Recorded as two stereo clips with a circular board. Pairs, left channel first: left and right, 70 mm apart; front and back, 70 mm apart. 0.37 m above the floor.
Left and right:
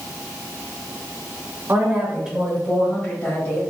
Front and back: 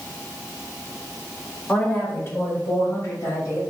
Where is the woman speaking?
60° right, 1.1 m; by 3.6 s 25° left, 1.9 m.